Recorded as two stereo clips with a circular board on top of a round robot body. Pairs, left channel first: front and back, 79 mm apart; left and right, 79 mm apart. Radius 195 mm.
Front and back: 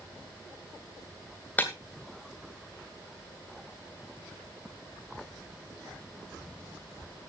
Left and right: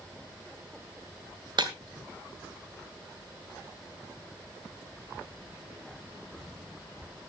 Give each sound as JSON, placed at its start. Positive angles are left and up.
{"t": 1.6, "sound": "breaking glass", "azimuth_deg": -70, "distance_m": 2.5}